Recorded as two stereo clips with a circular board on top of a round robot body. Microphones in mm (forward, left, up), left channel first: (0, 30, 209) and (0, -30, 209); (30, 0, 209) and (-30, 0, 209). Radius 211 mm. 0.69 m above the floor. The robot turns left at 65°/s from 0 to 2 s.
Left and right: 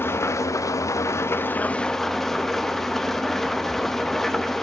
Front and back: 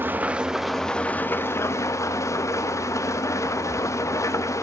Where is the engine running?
135° left, 1.4 m; by 4.6 s 5° left, 1.4 m.